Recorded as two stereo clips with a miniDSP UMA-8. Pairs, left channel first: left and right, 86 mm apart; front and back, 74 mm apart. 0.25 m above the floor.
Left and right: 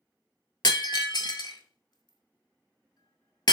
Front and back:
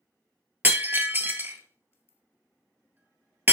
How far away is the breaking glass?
About 0.6 m.